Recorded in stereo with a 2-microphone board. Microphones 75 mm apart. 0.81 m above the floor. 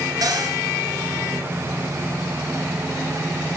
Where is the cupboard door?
60° right (ahead or behind), 3 m.